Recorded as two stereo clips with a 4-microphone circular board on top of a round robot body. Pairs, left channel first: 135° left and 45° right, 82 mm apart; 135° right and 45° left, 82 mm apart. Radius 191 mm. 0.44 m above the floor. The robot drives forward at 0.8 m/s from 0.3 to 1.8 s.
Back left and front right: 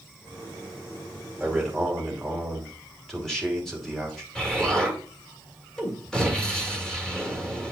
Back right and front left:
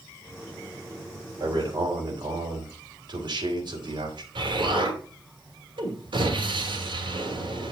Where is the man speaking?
45° left, 3 m; by 4.2 s 50° left, 3 m.